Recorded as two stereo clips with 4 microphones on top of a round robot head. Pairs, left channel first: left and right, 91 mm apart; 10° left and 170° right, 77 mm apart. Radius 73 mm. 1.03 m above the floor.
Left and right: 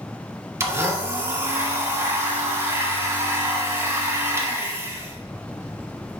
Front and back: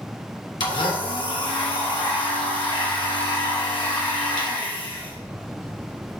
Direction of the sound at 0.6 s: 30° right.